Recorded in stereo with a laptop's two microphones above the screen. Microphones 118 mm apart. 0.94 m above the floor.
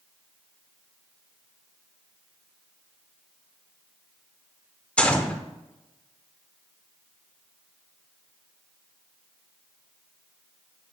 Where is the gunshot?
10° left (ahead or behind), 0.6 m.